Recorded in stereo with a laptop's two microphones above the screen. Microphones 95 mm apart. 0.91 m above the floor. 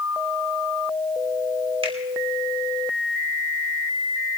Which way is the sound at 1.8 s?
75° right (ahead or behind).